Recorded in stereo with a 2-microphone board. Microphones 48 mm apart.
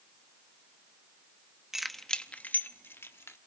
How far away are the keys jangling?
About 0.9 m.